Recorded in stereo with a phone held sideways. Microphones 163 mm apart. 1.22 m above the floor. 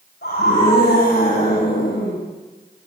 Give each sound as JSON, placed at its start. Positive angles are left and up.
{"t": 0.2, "sound": "a scream", "side_deg": 90, "distance_m": 9.0}